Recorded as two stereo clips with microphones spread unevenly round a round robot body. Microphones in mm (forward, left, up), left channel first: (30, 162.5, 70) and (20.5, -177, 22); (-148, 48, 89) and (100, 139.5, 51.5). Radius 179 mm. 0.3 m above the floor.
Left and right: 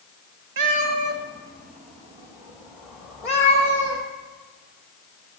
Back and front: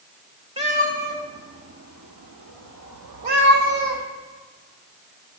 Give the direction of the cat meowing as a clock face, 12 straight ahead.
2 o'clock.